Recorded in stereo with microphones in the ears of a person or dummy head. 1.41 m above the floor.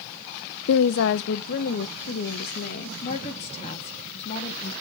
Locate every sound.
0.7 s a woman speaking: 75° left (ahead or behind), 0.5 m; by 2.9 s 55° left (ahead or behind), 1.8 m
3.0 s a woman speaking: 35° left (ahead or behind), 2.5 m